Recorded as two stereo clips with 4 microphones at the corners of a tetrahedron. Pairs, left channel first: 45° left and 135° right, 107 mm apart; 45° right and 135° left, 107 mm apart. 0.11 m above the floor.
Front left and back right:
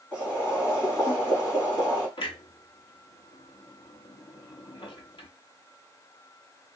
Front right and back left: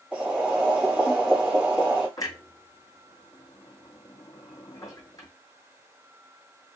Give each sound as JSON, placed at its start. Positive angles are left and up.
{"t": 0.1, "sound": "boiling", "azimuth_deg": 65, "distance_m": 1.7}
{"t": 2.2, "sound": "a clunk", "azimuth_deg": 10, "distance_m": 0.6}